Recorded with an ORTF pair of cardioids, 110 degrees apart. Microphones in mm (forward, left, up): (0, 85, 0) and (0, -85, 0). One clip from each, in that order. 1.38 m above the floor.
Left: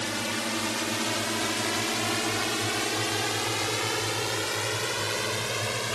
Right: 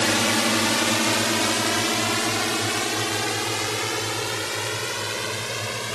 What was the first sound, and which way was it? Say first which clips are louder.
A drone: right 9 dB; 55° right.